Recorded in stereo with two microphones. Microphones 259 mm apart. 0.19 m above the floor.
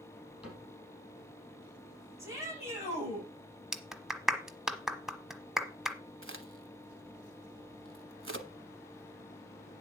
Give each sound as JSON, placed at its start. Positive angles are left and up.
{"t": 0.4, "sound": "a cupboard door", "side_deg": -5, "distance_m": 5.5}
{"t": 2.2, "sound": "a shout", "side_deg": -10, "distance_m": 8.0}
{"t": 3.7, "sound": "a clap", "side_deg": 0, "distance_m": 1.2}
{"t": 6.2, "sound": "a crack", "side_deg": -50, "distance_m": 1.2}